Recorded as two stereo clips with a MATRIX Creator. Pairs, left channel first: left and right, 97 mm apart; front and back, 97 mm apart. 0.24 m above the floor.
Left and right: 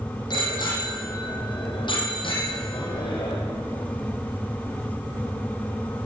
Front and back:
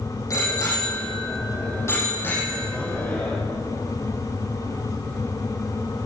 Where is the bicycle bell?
50° left, 7 m; by 3.4 s 70° left, 6.5 m.